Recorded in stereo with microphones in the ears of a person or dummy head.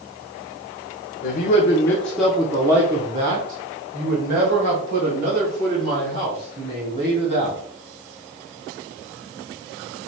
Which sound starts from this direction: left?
A man speaking, at 1.2 s.